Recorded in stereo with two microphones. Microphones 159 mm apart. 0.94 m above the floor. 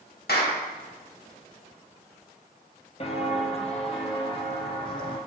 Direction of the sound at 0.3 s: 80° left.